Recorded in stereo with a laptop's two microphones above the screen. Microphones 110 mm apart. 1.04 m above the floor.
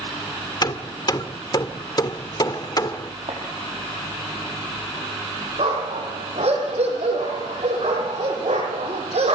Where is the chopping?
65° right (ahead or behind), 6.5 m.